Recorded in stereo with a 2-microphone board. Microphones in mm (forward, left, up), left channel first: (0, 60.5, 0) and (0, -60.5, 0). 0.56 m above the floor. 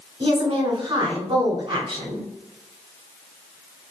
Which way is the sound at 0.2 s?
40° right (ahead or behind).